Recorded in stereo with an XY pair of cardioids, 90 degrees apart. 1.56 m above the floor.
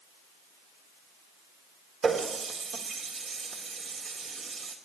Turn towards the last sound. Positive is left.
turn(degrees=-60)